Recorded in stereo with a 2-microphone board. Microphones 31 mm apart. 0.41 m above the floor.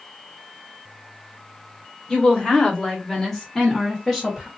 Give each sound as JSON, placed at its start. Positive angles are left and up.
{"t": 2.1, "sound": "a woman speaking", "side_deg": 25, "distance_m": 1.3}